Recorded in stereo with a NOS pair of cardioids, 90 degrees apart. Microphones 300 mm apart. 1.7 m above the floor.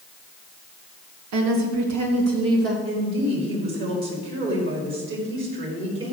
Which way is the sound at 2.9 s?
45° right.